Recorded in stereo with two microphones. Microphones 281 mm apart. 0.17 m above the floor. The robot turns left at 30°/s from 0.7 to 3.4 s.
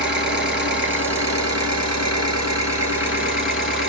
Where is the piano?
No piano in this recording.